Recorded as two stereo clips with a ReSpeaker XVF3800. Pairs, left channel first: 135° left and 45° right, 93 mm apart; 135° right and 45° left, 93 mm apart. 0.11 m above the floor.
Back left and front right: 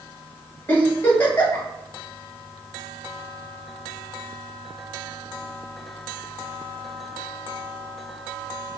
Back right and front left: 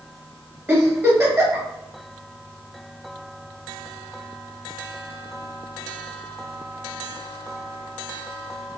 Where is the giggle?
85° left, 1.6 m.